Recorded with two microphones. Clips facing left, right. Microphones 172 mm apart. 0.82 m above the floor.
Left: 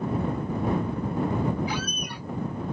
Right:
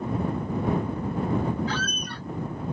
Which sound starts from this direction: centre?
A squeak, at 1.7 s.